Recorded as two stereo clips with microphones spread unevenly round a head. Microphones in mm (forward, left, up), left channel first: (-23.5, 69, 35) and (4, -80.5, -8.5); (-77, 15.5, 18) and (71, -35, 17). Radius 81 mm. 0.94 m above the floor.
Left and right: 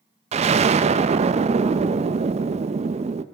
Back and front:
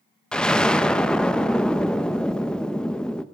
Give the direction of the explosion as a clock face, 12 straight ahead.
4 o'clock.